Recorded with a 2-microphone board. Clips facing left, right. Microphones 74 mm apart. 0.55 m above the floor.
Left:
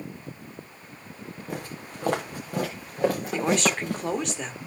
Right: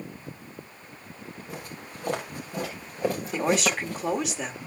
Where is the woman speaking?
5° right (ahead or behind), 1.3 m.